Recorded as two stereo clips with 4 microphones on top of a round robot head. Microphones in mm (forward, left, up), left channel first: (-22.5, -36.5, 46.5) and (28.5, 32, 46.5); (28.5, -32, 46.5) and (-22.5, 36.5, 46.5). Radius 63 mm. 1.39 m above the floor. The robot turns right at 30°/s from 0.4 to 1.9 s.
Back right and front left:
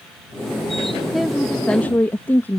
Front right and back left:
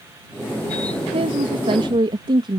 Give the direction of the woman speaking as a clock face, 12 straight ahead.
7 o'clock.